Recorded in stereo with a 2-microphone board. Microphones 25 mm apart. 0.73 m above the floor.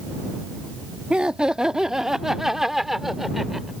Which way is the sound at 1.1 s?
40° right (ahead or behind).